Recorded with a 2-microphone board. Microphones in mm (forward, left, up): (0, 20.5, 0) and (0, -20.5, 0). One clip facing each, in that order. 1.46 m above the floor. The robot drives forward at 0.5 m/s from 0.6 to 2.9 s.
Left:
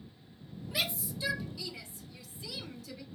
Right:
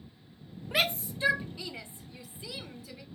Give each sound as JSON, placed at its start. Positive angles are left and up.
{"t": 0.7, "sound": "a shout", "side_deg": -55, "distance_m": 0.8}